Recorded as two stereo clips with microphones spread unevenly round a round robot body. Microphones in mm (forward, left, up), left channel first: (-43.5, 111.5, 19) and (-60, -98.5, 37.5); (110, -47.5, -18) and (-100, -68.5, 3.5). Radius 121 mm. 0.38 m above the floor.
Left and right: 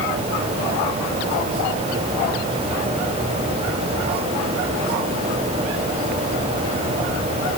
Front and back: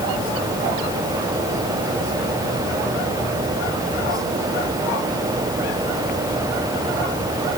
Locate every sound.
Only background noise.